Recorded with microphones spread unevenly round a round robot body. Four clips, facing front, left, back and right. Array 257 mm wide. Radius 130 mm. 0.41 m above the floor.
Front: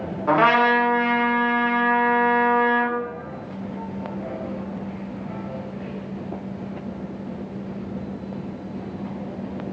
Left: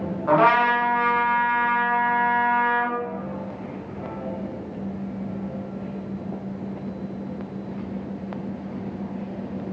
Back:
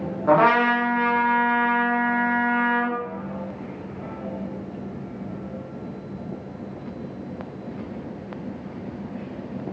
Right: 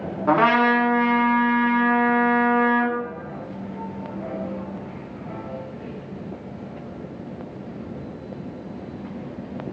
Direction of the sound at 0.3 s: 115° right.